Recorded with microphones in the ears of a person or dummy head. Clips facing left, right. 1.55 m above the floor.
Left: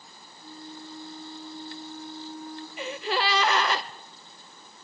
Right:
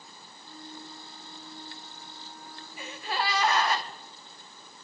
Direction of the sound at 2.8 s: 65° left (ahead or behind).